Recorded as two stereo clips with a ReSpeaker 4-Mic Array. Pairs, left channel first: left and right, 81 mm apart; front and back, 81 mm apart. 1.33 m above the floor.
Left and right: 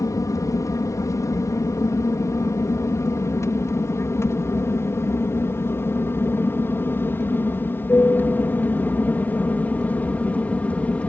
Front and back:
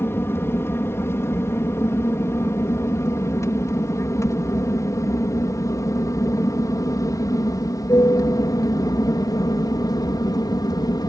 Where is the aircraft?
55° left; by 11.1 s 20° left.